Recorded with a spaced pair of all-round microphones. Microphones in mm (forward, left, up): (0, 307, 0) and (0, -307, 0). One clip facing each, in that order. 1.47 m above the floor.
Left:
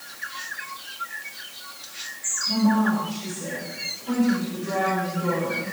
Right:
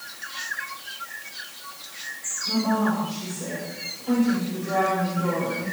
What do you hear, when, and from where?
2.5 s a woman speaking: 70° right (ahead or behind), 7.5 m; by 5.7 s 45° right (ahead or behind), 8 m